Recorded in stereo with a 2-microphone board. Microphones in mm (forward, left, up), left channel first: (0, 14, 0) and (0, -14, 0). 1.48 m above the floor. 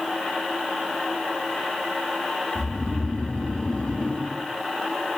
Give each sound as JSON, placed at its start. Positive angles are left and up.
{"t": 2.5, "sound": "snoring", "side_deg": 30, "distance_m": 3.0}